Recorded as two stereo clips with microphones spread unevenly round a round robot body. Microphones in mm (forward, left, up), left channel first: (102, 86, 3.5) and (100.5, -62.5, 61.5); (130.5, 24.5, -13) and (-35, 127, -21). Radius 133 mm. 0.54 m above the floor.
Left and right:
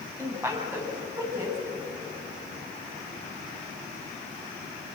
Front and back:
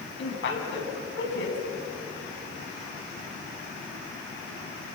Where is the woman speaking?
15° right, 5 m.